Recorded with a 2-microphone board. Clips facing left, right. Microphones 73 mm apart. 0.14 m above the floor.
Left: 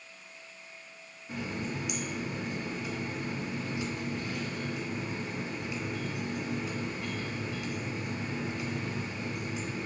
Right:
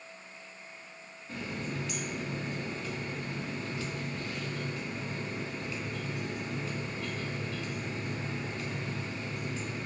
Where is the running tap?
15° left (ahead or behind), 0.7 m.